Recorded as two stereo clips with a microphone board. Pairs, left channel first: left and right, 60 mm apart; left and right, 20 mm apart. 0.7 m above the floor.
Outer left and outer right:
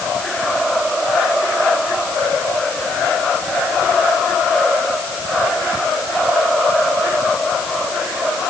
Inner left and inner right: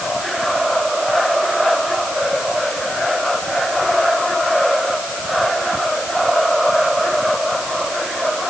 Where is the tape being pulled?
I don't hear tape being pulled.